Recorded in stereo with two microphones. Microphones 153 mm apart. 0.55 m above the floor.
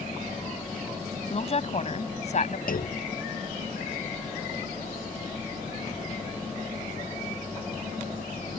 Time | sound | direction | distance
1.3 | a woman speaking | 45° left (ahead or behind) | ?
2.7 | a clunk | 70° left (ahead or behind) | ?